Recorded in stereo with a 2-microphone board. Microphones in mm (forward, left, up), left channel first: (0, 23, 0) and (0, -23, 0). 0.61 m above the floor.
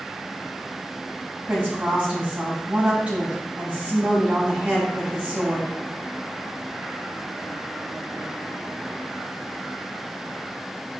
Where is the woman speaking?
25° right (ahead or behind), 4 m.